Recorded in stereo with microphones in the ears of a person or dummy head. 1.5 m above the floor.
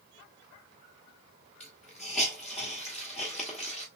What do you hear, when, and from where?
1.6 s a hiss: centre (ahead or behind), 1.0 m